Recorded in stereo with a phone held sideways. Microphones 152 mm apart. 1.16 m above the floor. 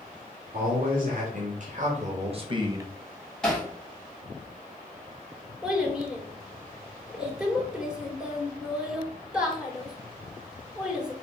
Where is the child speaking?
5° right (ahead or behind), 3 m.